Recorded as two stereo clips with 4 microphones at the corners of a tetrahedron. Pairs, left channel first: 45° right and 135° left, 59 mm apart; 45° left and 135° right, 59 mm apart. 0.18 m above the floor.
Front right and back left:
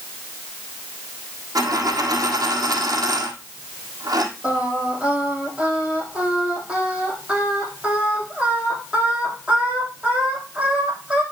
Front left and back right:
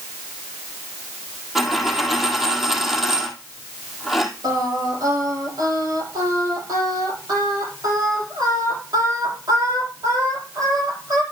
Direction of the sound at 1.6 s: 140° left.